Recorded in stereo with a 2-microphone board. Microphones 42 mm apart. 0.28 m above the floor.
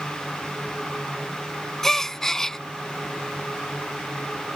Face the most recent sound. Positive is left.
turn(degrees=10)  # may be behind; listen again after turning